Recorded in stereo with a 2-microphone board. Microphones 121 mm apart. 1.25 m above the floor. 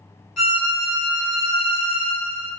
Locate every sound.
0.4 s a violin: centre (ahead or behind), 1.5 m